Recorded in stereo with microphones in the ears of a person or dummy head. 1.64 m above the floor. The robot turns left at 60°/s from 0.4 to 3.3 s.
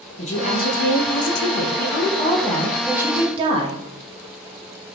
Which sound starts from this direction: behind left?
A woman speaking, at 0.2 s.